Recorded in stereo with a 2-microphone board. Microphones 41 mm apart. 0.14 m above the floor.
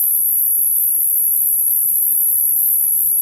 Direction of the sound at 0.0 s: 40° left (ahead or behind).